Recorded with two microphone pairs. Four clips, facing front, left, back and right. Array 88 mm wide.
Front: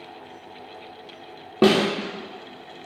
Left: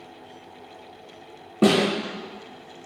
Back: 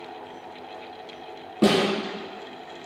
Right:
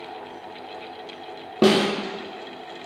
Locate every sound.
1.6 s a snare drum: 20° right, 0.6 m